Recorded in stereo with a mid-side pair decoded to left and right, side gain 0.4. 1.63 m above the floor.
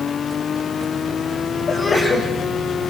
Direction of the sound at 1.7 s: 45° left.